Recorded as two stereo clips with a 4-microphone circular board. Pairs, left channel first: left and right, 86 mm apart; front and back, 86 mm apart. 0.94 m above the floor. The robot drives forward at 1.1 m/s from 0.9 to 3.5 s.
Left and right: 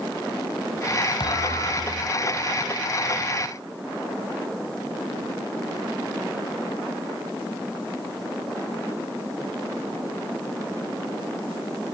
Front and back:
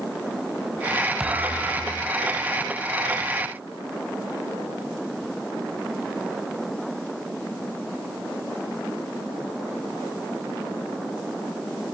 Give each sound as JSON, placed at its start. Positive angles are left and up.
{"t": 1.2, "sound": "a thud", "azimuth_deg": 100, "distance_m": 1.6}